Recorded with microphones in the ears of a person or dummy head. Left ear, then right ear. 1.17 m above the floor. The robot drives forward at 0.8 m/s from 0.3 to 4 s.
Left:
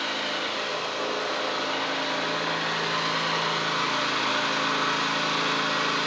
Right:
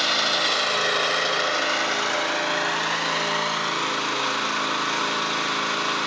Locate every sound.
0.0 s an engine running: 45° right (ahead or behind), 1.4 m; by 6.1 s 20° right (ahead or behind), 2.5 m